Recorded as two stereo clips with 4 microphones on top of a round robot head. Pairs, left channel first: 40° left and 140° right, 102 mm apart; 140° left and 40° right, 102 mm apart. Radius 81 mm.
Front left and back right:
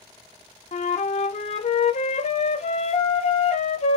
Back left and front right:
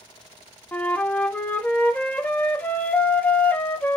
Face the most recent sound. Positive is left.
turn(degrees=65)